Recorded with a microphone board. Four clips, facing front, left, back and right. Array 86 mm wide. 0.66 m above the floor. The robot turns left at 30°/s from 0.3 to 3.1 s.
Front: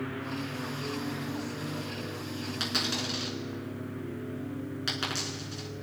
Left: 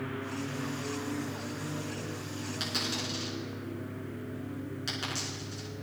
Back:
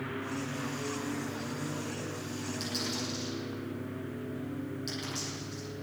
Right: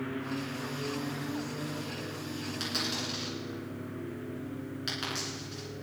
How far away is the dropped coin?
About 4 m.